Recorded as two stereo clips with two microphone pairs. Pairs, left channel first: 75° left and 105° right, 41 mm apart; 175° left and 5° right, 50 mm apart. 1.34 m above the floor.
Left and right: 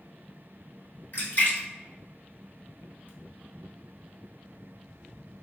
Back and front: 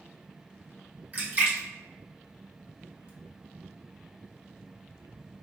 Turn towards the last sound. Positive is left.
turn(degrees=40)